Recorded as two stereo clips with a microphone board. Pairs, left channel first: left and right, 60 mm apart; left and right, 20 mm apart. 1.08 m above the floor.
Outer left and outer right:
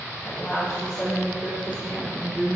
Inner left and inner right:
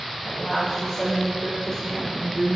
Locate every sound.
0.2 s a woman speaking: 20° left (ahead or behind), 5 m; by 2.6 s 25° left (ahead or behind), 4 m